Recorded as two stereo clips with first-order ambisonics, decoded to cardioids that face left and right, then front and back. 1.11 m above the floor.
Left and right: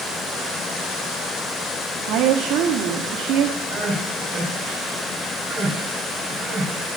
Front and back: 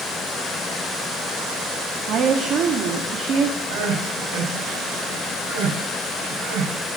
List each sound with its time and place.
2.0 s a woman speaking: 125° right, 1.7 m
3.7 s crying: 155° right, 4.5 m